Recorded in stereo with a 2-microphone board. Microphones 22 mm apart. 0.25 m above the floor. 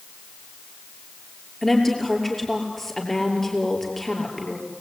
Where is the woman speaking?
10° left (ahead or behind), 6 m.